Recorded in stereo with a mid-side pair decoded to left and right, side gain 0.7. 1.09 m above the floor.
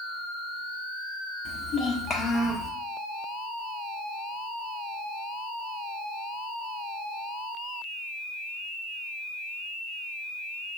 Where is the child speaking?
55° left, 1.1 m; by 2.7 s 25° left, 1.5 m.